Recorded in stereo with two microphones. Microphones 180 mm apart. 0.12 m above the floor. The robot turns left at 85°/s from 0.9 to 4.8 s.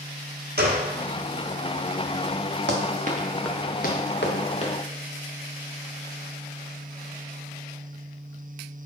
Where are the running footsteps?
85° right, 1.2 m; by 4.7 s 25° left (ahead or behind), 1.4 m.